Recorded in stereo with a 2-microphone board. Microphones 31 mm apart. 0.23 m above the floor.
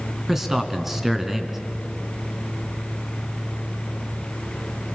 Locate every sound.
0.3 s a man speaking: 15° right (ahead or behind), 2.5 m